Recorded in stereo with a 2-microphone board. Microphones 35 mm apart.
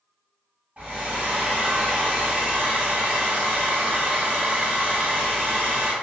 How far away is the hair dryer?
About 1.3 m.